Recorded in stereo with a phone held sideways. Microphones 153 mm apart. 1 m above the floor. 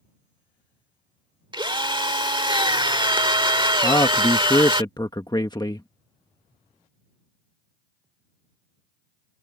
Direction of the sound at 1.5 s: 30° right (ahead or behind).